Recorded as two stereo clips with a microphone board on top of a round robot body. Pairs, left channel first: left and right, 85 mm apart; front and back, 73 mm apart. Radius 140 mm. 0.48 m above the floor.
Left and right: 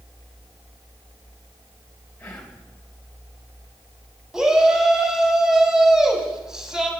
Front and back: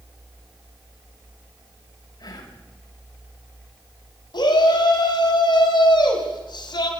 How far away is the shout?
About 5 m.